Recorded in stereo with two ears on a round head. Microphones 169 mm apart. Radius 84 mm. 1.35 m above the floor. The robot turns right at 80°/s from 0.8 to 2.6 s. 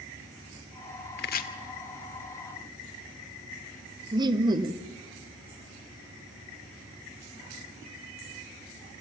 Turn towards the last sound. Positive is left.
turn(degrees=-25)  # may be behind; listen again after turning